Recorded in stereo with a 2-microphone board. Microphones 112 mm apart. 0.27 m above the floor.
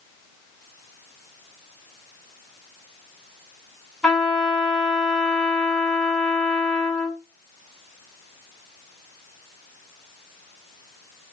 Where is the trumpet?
5° left (ahead or behind), 2.5 m.